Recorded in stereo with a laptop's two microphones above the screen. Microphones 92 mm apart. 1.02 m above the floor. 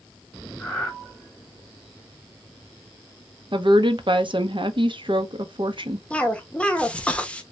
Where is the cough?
15° left (ahead or behind), 0.7 m.